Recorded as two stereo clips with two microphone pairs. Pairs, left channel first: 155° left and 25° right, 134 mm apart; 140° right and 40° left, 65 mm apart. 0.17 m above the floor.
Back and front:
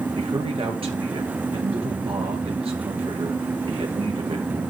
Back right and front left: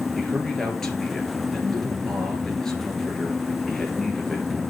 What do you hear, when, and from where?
0.2 s a man speaking: 60° right, 2.5 m